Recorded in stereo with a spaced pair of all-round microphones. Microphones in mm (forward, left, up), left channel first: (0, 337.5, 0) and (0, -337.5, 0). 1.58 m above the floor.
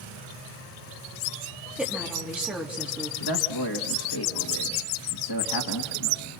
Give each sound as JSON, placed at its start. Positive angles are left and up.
{"t": 1.8, "sound": "a woman speaking", "side_deg": 0, "distance_m": 3.0}
{"t": 3.2, "sound": "a man speaking", "side_deg": 35, "distance_m": 1.6}